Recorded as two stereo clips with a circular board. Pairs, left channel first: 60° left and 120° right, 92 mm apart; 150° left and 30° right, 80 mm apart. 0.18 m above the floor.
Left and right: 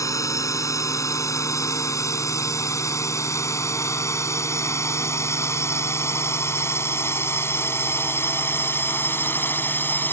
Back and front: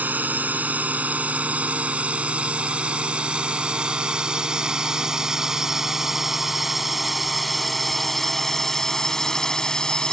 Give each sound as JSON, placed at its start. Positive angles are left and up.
{"t": 0.0, "sound": "a drone", "azimuth_deg": 30}